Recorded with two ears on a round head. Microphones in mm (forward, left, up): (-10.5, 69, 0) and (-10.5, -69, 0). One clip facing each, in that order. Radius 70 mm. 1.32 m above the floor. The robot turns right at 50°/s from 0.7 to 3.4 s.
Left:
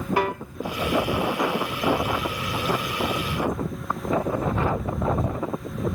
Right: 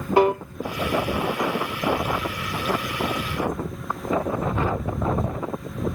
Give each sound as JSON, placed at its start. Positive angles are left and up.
{"t": 0.2, "sound": "a piano", "side_deg": -25}